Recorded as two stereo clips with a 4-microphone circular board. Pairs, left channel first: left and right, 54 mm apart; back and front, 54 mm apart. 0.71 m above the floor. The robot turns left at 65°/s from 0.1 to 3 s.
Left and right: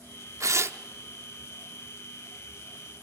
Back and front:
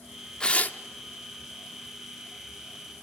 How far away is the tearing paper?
About 0.5 m.